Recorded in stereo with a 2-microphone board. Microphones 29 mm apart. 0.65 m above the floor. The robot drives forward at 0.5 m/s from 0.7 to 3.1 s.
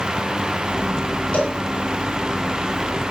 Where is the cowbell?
60° left (ahead or behind), 6 m.